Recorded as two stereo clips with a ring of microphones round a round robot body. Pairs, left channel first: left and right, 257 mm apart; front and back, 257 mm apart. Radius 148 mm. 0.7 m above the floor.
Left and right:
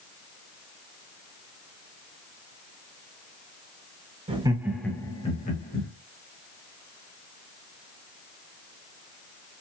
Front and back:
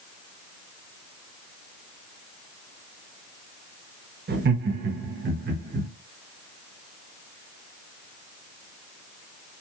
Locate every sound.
4.3 s laughter: 150° right, 0.9 m; by 5.9 s 130° left, 1.1 m